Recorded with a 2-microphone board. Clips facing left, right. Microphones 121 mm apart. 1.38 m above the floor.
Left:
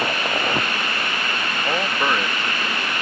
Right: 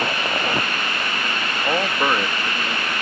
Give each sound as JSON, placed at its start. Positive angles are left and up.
{"t": 1.6, "sound": "a man speaking", "side_deg": -10}